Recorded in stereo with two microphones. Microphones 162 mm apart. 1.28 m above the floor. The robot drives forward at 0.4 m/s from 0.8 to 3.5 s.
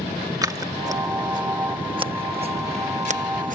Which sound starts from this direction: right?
Scissors, at 0.4 s.